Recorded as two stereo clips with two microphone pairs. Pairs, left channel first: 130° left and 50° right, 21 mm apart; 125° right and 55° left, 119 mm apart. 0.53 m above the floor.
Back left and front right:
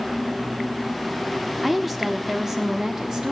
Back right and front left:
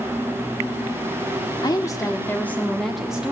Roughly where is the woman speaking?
Behind right.